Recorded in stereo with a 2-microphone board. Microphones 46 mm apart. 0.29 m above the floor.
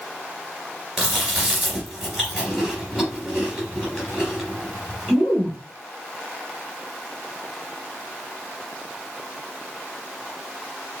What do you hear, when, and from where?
1.0 s chewing: centre (ahead or behind), 3 m